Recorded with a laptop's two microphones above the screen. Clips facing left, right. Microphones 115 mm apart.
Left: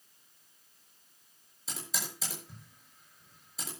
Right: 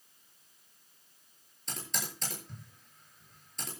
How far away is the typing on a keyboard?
About 7.5 m.